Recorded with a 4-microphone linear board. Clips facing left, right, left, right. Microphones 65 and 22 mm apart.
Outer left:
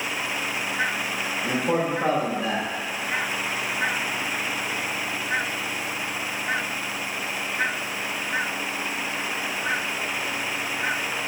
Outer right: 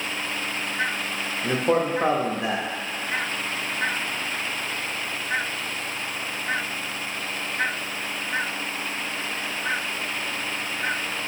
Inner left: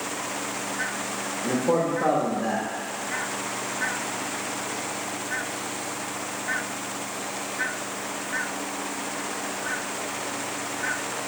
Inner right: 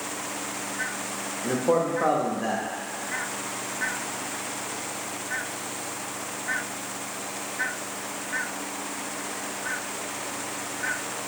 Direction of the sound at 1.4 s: 25° right (ahead or behind).